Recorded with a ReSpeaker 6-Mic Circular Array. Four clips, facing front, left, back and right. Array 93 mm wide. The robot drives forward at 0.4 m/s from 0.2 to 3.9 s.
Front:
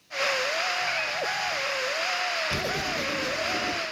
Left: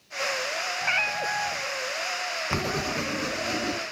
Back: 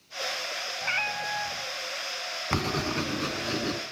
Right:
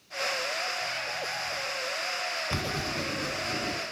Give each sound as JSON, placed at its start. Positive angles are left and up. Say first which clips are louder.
{"t": 0.8, "sound": "a cat meowing", "louder": "left 6 dB, front 2 dB", "azimuth_deg": 105, "distance_m": 1.0}
{"t": 2.5, "sound": "writing", "louder": "left 7 dB, back 1 dB", "azimuth_deg": 150, "distance_m": 1.0}